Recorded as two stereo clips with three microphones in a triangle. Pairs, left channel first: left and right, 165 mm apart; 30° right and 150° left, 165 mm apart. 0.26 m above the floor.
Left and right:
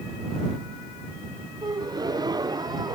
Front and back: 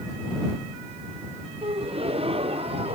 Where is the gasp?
155° right.